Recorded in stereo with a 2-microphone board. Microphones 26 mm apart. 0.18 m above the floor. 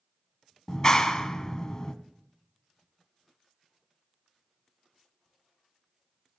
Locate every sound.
0.7 s a clap: 25° left (ahead or behind), 0.9 m